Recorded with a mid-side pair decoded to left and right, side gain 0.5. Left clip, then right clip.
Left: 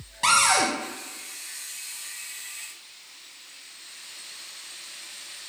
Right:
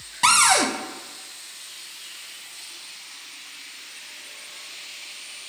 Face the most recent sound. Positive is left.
turn(degrees=-35)